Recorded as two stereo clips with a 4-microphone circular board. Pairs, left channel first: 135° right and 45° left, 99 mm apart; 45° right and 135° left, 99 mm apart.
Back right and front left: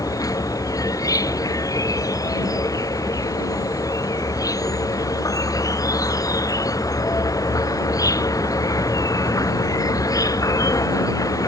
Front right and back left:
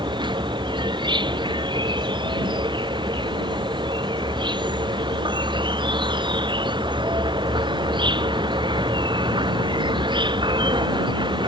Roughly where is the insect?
Behind.